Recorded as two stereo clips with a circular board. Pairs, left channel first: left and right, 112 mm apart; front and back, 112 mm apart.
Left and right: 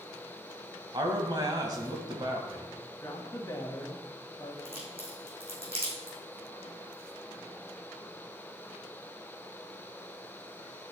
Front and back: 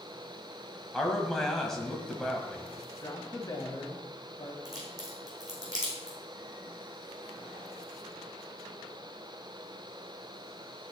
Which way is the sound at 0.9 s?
85° right.